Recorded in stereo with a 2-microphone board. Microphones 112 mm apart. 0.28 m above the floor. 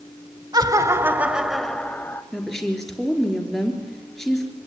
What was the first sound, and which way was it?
Laughter, 35° right (ahead or behind).